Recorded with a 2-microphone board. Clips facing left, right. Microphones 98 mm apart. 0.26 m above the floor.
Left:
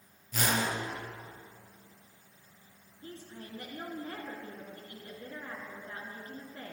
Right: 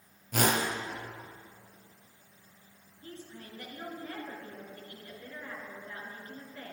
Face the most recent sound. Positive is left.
turn(degrees=30)  # may be behind; listen again after turning